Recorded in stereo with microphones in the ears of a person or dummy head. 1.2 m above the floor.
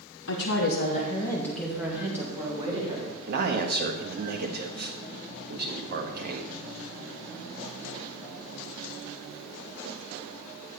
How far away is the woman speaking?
About 1.2 m.